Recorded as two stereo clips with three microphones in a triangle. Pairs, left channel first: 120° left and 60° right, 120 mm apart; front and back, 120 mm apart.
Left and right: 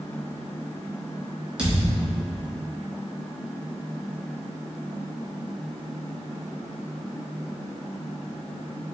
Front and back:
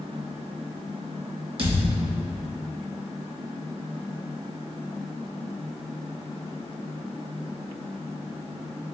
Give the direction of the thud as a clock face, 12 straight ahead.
5 o'clock.